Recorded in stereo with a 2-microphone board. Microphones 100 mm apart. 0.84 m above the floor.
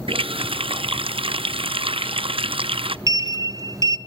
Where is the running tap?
75° right (ahead or behind), 0.6 m.